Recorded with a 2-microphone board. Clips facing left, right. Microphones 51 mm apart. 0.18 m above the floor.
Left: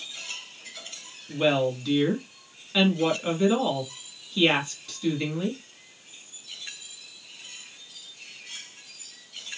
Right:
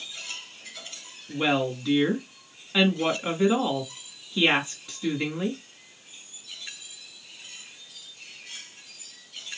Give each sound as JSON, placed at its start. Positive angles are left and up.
{"t": 1.3, "sound": "a woman speaking", "side_deg": -15, "distance_m": 2.0}